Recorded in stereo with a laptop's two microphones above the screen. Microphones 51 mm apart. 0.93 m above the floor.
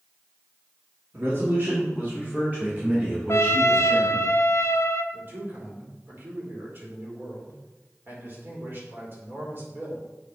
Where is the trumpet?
60° left (ahead or behind), 0.6 m.